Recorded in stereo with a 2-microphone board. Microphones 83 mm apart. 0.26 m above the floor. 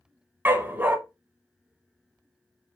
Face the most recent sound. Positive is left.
turn(degrees=-25)  # may be behind; listen again after turning